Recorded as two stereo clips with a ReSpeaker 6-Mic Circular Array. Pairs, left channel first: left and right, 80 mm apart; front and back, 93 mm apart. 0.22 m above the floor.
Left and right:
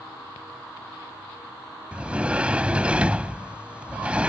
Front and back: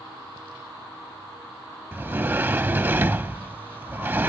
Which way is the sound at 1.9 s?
145° right.